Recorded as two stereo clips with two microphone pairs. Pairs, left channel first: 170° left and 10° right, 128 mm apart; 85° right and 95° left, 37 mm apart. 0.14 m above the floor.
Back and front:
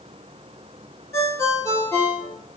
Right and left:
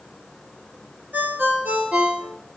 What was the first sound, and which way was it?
A ringtone, 105° left.